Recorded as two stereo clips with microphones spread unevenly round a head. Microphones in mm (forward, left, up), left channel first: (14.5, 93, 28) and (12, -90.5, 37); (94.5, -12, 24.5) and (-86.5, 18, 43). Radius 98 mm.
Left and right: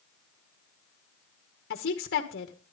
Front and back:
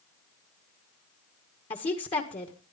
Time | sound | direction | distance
1.7 | a woman speaking | 55° left | 1.8 m